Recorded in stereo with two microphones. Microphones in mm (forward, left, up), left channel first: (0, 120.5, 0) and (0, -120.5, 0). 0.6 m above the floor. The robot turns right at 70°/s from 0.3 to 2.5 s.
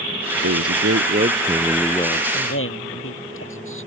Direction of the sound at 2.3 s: 45° left (ahead or behind).